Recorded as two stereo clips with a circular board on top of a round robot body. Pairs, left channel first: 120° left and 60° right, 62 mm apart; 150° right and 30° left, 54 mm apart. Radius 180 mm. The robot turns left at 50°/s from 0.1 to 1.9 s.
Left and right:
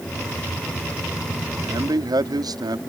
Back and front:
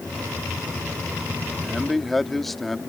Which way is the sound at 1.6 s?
50° right.